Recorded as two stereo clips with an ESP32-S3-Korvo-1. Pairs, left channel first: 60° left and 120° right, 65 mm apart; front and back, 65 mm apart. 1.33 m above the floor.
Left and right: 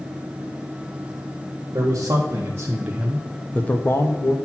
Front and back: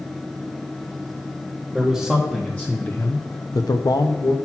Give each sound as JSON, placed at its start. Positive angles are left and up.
{"t": 1.7, "sound": "a man speaking", "azimuth_deg": -90, "distance_m": 1.6}